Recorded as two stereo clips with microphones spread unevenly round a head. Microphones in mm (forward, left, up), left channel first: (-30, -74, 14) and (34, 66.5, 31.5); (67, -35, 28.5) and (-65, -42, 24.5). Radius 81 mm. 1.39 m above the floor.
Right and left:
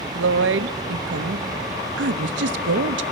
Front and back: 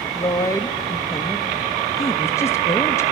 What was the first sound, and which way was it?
A woman speaking, 75° left.